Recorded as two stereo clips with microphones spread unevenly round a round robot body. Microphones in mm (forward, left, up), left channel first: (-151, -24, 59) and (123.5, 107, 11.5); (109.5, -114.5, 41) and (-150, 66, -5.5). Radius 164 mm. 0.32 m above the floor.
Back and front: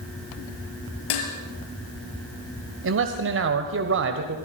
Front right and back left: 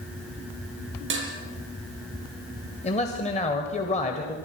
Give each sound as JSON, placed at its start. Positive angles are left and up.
{"t": 1.1, "sound": "dishes clattering", "azimuth_deg": -160, "distance_m": 5.0}
{"t": 2.8, "sound": "a man speaking", "azimuth_deg": 40, "distance_m": 1.7}